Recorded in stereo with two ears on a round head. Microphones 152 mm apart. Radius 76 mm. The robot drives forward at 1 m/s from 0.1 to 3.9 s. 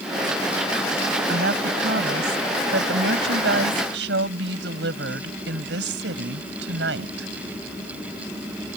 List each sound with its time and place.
1.3 s a woman speaking: 70° right (ahead or behind); by 7.3 s 80° right